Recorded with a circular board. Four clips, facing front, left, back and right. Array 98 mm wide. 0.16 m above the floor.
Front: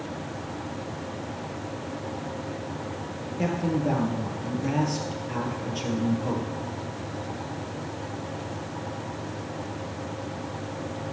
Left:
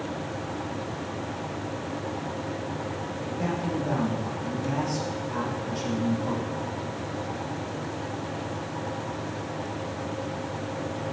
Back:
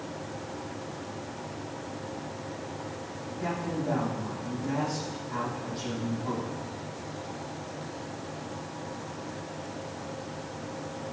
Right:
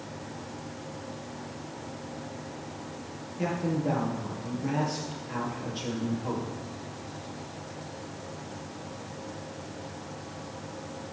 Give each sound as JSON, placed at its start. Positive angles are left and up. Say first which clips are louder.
{"t": 3.4, "sound": "a man speaking", "louder": "right 1 dB, front 6 dB", "azimuth_deg": -10, "distance_m": 3.5}